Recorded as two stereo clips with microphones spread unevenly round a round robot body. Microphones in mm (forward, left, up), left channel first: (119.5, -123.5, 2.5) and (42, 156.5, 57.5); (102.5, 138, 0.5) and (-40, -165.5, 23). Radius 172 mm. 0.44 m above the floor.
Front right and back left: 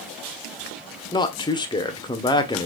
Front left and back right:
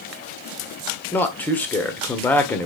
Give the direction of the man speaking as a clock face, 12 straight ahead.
12 o'clock.